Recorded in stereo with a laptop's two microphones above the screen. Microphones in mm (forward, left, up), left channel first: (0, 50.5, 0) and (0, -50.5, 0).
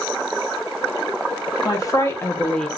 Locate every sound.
1.6 s a woman speaking: 35° left (ahead or behind), 1.3 m; by 2.7 s 5° left (ahead or behind), 0.7 m